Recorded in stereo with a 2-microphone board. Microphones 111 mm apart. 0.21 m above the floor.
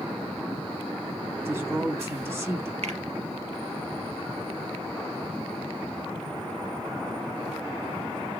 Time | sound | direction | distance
1.4 | a woman speaking | 25° right (ahead or behind) | 1.1 m
2.8 | a finger snap | 70° right (ahead or behind) | 4 m